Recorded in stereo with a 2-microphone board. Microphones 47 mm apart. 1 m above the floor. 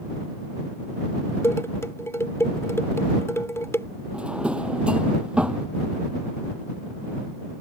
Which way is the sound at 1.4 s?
75° left (ahead or behind).